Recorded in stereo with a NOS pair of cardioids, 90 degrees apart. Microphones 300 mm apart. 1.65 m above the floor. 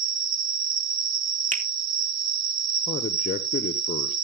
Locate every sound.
0.0 s an insect: 60° right, 1.7 m
1.5 s a finger snap: 25° right, 2 m
2.9 s a man speaking: 30° left, 1.1 m